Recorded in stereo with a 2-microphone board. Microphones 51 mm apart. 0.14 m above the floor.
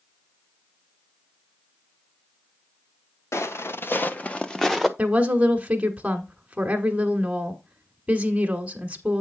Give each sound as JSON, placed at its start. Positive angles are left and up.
{"t": 3.3, "sound": "footsteps", "side_deg": 65, "distance_m": 1.1}
{"t": 5.0, "sound": "a woman speaking", "side_deg": -25, "distance_m": 1.3}